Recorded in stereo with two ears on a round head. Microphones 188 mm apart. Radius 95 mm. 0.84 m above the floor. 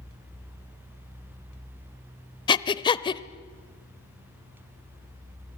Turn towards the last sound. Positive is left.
turn(degrees=20)  # may be behind; listen again after turning